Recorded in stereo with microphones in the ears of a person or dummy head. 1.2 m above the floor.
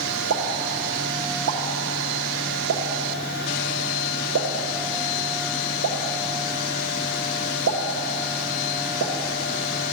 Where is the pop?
75° right (ahead or behind), 0.7 m.